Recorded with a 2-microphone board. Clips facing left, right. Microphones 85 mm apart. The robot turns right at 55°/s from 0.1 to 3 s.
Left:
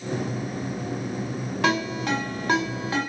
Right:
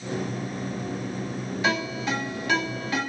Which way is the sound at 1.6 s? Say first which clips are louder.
Left 3 dB; 70° left (ahead or behind).